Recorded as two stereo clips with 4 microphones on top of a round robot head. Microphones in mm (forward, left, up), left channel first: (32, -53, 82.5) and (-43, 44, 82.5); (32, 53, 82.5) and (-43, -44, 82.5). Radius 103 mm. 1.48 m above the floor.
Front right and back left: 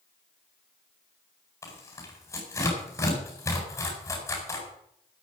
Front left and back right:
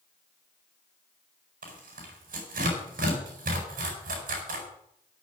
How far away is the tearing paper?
About 4.5 m.